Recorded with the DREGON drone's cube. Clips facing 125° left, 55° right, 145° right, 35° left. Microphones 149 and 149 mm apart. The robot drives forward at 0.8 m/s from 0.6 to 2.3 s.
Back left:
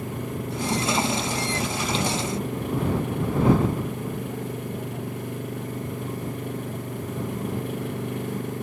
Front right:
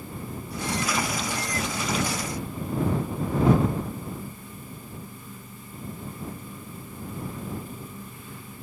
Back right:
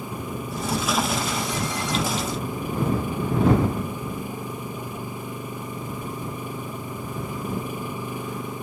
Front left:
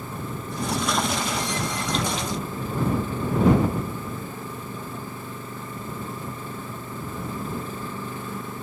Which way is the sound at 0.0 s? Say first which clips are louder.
Back left 6 dB, back right 2 dB; 135° left.